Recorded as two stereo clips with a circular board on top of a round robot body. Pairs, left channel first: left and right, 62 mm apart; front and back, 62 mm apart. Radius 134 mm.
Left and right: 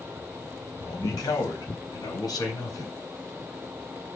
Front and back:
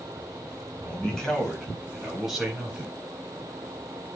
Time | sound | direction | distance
0.8 | a man speaking | 75° left | 4.5 m